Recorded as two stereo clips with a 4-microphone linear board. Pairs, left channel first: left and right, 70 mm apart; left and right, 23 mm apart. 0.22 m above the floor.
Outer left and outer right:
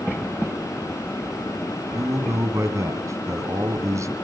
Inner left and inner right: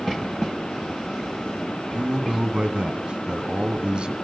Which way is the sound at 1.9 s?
45° right (ahead or behind).